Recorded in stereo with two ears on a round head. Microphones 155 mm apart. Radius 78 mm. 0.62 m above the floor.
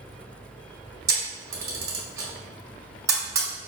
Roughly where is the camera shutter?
Right.